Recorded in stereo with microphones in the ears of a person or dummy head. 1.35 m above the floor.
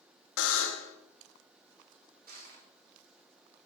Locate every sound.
0.4 s a buzzer: 70° left (ahead or behind), 1.7 m
2.3 s crushing: 55° right (ahead or behind), 3.5 m